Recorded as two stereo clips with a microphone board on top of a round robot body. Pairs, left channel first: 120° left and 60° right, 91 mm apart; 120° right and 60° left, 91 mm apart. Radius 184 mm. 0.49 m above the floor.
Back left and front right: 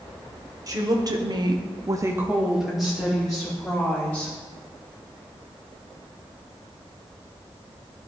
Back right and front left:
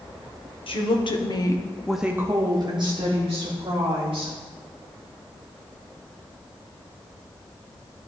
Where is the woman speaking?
110° right, 1.9 m; by 4.3 s 45° left, 3.5 m.